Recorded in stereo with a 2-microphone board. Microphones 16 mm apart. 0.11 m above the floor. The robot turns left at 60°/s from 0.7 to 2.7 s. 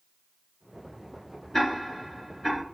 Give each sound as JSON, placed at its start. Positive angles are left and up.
{"t": 1.5, "sound": "ticking", "side_deg": 30, "distance_m": 2.0}